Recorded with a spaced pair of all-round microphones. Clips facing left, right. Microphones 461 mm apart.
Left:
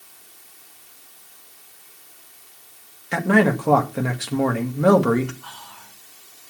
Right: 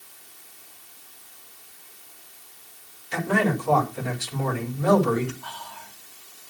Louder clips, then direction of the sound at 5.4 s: Right 3 dB; 25° left (ahead or behind).